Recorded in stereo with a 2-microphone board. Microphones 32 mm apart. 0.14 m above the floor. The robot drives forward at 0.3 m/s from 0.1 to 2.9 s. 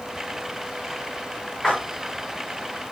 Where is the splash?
25° left (ahead or behind), 6.5 m.